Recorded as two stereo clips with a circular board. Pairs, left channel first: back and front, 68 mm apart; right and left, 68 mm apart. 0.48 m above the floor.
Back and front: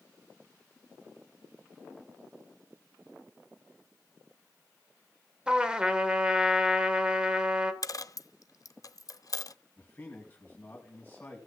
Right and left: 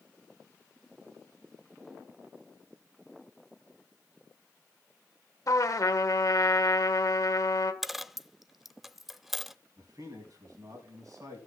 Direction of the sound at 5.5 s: 75° right.